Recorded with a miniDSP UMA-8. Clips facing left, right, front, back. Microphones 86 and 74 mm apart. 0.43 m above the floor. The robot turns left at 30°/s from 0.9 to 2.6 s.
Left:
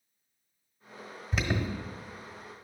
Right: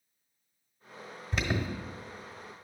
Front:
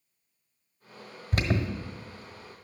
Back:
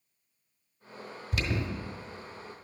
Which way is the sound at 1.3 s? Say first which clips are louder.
Left 1 dB, front 4 dB; straight ahead.